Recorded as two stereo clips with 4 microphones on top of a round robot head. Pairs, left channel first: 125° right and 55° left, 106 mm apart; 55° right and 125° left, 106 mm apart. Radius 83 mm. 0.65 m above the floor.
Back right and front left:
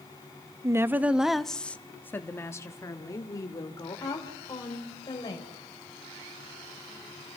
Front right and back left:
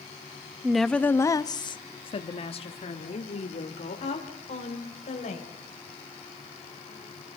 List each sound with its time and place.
0.6 s a woman speaking: 50° left, 0.7 m; by 5.5 s 70° right, 3 m